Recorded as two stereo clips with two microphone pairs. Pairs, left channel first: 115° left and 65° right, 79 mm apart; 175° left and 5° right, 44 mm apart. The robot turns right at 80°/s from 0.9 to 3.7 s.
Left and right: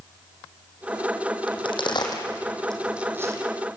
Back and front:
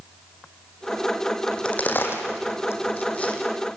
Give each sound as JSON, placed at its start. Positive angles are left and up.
{"t": 1.5, "sound": "a crack", "azimuth_deg": 95, "distance_m": 4.0}